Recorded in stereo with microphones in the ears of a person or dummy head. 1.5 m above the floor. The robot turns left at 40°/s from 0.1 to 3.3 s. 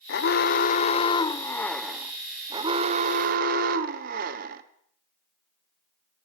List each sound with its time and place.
0.1 s an alarm: 65° left, 1.4 m; by 4.6 s 65° right, 1.4 m